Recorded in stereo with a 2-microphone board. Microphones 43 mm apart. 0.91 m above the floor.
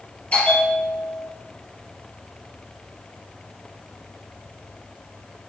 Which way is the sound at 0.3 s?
35° left (ahead or behind).